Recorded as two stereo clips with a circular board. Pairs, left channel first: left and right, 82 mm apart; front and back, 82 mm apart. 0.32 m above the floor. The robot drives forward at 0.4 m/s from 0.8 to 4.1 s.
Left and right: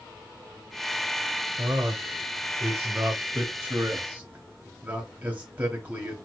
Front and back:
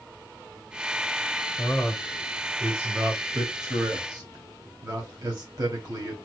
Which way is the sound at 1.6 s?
80° right.